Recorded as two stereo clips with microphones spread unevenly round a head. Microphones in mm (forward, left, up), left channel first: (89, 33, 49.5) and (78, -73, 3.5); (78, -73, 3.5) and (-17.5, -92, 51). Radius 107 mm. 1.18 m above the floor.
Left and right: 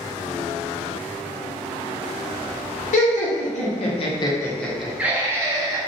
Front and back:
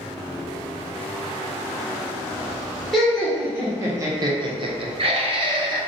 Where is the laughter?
80° left, 1.1 m; by 5.8 s 120° right, 1.1 m.